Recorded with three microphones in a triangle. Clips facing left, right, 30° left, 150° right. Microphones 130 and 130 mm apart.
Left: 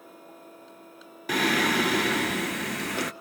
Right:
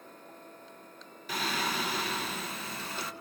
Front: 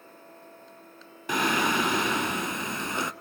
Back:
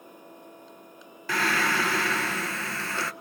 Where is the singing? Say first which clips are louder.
Left 9 dB, front 1 dB; 100° left, 0.6 m.